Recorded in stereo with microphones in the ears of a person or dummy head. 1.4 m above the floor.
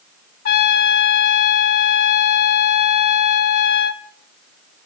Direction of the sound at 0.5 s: 50° left (ahead or behind).